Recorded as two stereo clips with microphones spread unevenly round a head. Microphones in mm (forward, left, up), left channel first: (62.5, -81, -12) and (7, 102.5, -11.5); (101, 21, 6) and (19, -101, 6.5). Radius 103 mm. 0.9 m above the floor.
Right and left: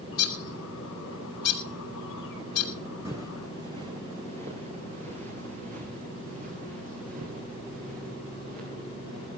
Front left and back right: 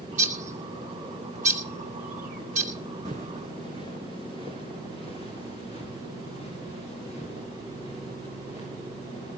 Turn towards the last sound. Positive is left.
turn(degrees=160)